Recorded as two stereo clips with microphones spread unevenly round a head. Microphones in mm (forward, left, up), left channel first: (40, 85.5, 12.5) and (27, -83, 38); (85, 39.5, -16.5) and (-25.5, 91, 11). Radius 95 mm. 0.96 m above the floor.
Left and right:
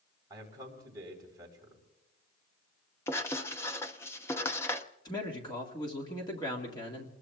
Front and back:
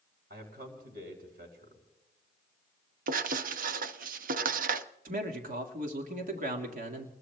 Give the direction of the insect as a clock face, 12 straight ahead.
No insect in this recording.